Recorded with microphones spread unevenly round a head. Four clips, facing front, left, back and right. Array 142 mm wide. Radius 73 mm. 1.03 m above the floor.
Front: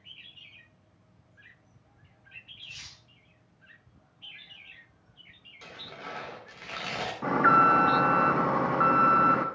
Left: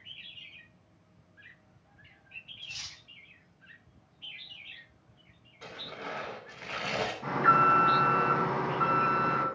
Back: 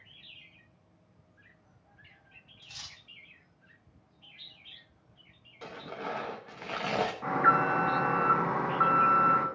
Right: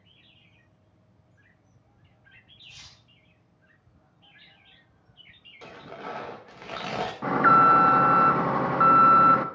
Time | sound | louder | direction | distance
2.6 | cutlery clinking | left 4 dB, back 3 dB | 170° right | 1.5 m
5.6 | tearing paper | right 3 dB, back 5 dB | 150° right | 1.6 m
7.2 | an alarm | right 6 dB, front 6 dB | 35° right | 1.3 m